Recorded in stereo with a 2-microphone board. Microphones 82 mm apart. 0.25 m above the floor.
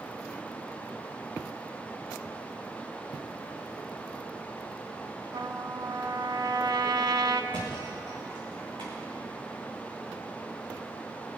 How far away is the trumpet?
About 0.7 m.